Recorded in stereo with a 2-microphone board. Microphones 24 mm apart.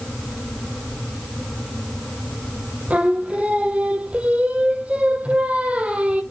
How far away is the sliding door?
No sliding door in this recording.